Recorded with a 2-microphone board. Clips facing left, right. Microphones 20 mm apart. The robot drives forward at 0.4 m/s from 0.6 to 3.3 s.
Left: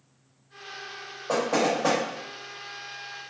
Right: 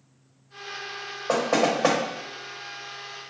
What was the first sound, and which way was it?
Knocking, 35° right (ahead or behind).